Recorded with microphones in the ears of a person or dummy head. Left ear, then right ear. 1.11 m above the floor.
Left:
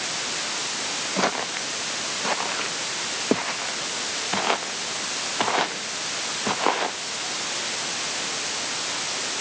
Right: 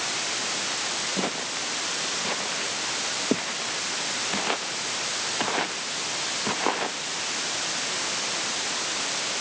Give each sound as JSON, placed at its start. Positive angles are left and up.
{"t": 1.2, "sound": "footsteps", "side_deg": 50}